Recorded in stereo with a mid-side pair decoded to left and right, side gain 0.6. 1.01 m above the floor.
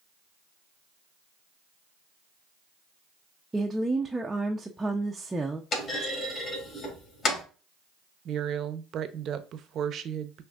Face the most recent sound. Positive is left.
turn(degrees=-50)